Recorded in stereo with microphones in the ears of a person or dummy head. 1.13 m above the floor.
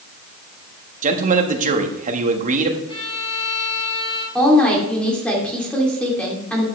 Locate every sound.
1.0 s a man speaking: 45° right (ahead or behind), 1.5 m
2.9 s a violin: 30° left (ahead or behind), 6 m
4.3 s a woman speaking: 5° left (ahead or behind), 2.5 m